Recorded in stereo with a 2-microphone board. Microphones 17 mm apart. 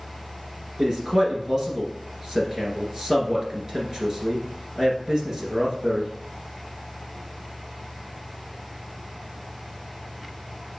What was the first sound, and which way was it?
A man speaking, 35° right (ahead or behind).